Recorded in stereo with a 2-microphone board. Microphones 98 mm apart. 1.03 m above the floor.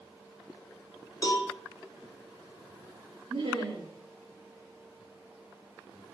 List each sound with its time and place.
1.2 s a cowbell: 35° left (ahead or behind), 1.6 m
3.3 s laughter: 65° right (ahead or behind), 1.7 m